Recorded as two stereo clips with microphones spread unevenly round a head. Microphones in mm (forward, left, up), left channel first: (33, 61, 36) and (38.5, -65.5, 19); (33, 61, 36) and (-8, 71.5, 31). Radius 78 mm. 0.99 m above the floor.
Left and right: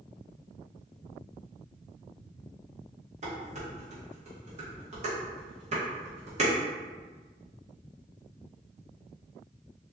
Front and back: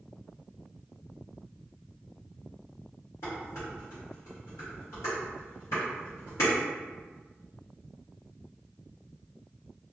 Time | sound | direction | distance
3.2 | dishes clattering | 55° right | 1.3 m